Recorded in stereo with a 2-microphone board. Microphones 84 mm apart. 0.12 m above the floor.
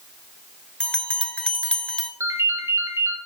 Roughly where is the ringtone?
Right.